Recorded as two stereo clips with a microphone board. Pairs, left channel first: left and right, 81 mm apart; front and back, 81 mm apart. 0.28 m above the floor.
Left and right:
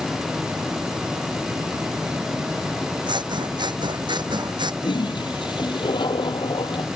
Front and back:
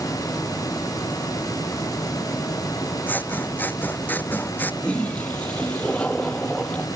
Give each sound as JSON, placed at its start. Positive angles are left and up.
{"t": 3.1, "sound": "scissors", "azimuth_deg": -65}
{"t": 4.8, "sound": "a toilet flushing", "azimuth_deg": 75}